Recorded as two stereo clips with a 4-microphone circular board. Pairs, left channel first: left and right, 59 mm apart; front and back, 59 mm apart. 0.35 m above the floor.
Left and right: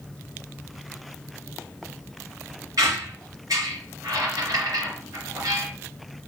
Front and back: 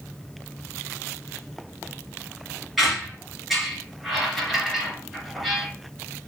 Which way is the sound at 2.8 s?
90° right.